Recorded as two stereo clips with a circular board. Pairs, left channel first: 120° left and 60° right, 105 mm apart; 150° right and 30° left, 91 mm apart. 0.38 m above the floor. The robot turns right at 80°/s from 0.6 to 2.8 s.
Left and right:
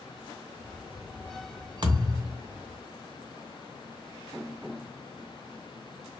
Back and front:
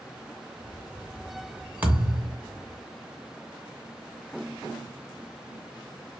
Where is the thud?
40° right, 0.6 m; by 2.4 s 5° left, 0.6 m.